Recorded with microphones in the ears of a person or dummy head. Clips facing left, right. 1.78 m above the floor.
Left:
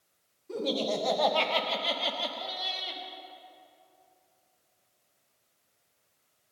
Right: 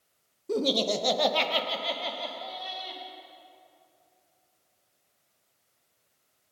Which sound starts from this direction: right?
Laughter, at 0.5 s.